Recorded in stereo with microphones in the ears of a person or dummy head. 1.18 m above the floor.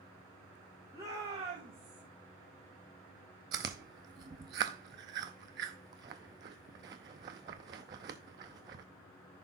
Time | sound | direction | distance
0.9 | a shout | 10° right (ahead or behind) | 2.0 m
3.5 | chewing | 25° right (ahead or behind) | 0.6 m